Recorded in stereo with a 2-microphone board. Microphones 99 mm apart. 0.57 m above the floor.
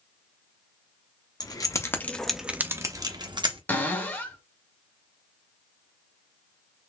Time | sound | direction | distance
1.4 | keys jangling | 45° left (ahead or behind) | 0.7 m
3.7 | a cupboard door | 20° left (ahead or behind) | 1.0 m